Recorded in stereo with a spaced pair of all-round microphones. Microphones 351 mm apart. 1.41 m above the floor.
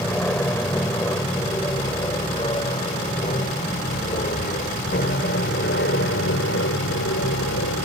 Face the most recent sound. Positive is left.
turn(degrees=45)  # may be behind; listen again after turning